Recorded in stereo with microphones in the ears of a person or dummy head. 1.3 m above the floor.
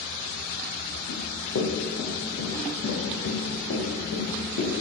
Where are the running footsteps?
70° left (ahead or behind), 3.5 m.